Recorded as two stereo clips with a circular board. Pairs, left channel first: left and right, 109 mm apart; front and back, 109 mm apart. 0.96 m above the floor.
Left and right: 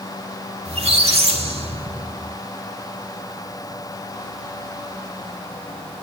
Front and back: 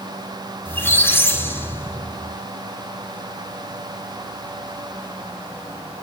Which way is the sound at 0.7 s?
70° right.